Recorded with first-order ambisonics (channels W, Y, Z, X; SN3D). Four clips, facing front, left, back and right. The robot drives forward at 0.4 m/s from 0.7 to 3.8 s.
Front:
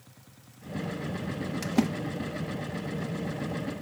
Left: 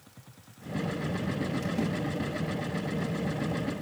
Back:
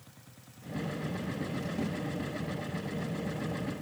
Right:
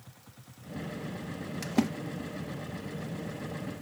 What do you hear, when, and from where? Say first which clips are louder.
1.6 s a splash: right 7 dB, front 12 dB; 30° right, 0.7 m; by 1.9 s 35° right, 0.6 m